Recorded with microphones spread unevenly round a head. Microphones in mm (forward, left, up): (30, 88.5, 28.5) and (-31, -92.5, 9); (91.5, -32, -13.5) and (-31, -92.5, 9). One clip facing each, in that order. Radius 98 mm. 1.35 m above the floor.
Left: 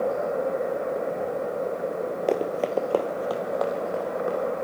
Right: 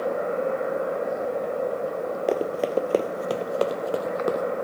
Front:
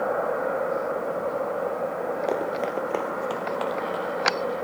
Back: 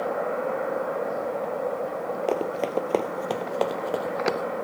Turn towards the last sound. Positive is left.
turn(degrees=-145)